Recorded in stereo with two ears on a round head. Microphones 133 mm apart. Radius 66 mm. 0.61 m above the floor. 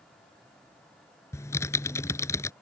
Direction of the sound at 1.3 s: 20° left (ahead or behind).